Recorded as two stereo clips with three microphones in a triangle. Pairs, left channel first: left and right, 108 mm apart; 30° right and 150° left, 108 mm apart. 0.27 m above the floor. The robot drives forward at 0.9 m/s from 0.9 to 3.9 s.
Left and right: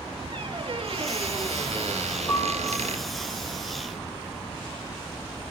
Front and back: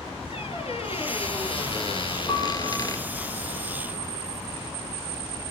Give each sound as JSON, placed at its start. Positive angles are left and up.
{"t": 0.3, "sound": "a squeak", "azimuth_deg": -55, "distance_m": 3.5}
{"t": 2.3, "sound": "a piano", "azimuth_deg": 20, "distance_m": 7.0}